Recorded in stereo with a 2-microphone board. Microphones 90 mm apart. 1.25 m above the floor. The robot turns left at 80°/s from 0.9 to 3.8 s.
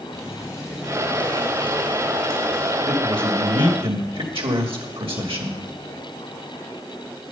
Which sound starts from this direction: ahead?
A man speaking, at 2.9 s.